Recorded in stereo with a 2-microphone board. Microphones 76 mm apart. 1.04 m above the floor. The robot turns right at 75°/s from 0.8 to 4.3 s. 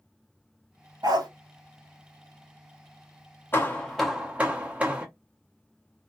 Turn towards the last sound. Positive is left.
turn(degrees=-160)